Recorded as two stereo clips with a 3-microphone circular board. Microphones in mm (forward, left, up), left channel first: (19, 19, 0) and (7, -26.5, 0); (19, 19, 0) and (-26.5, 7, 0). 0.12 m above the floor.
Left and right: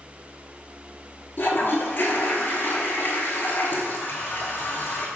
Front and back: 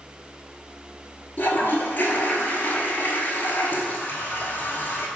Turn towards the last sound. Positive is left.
turn(degrees=50)